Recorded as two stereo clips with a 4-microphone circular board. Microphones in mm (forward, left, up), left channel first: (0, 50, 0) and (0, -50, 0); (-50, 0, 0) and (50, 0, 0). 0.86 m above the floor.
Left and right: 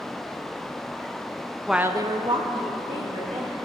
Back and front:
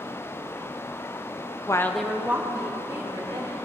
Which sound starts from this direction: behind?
A woman speaking, at 1.7 s.